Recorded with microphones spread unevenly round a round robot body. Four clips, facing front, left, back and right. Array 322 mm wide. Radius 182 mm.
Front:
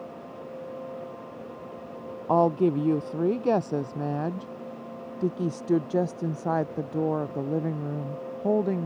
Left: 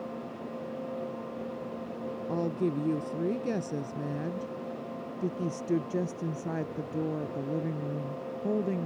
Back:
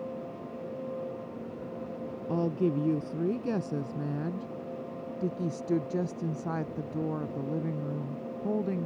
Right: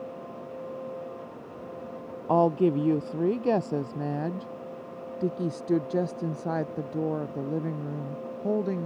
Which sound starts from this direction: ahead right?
A woman speaking, at 2.3 s.